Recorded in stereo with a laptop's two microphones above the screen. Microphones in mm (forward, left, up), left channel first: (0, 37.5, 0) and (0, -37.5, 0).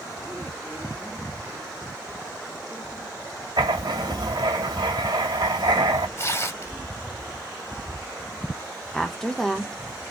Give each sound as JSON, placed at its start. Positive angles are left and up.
{"t": 3.6, "sound": "writing", "side_deg": -85, "distance_m": 1.7}
{"t": 6.2, "sound": "tearing paper", "side_deg": 40, "distance_m": 2.5}
{"t": 8.9, "sound": "a woman speaking", "side_deg": 5, "distance_m": 0.8}